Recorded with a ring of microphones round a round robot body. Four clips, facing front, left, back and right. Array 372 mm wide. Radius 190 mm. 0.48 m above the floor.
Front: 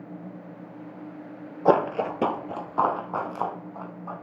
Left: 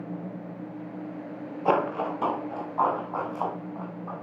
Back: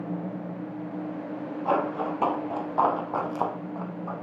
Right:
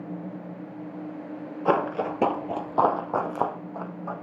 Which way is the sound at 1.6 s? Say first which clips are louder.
Right 1 dB, front 5 dB; 15° right.